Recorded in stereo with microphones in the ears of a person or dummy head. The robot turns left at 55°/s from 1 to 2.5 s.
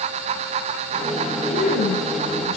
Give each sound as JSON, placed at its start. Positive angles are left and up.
{"t": 1.5, "sound": "a man speaking", "azimuth_deg": 145, "distance_m": 8.5}